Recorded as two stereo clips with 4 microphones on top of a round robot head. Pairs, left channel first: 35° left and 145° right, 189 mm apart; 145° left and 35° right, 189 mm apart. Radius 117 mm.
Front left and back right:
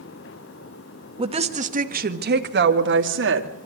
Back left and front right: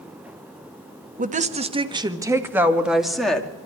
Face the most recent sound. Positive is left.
turn(degrees=-130)